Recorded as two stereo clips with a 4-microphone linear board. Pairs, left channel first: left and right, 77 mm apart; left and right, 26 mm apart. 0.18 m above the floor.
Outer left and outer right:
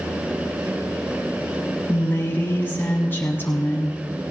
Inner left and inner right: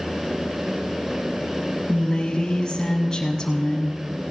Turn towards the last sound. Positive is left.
turn(degrees=30)  # may be behind; listen again after turning